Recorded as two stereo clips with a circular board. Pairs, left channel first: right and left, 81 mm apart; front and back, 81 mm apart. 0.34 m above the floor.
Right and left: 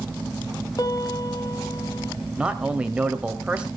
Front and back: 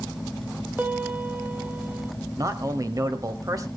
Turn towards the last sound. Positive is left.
turn(degrees=165)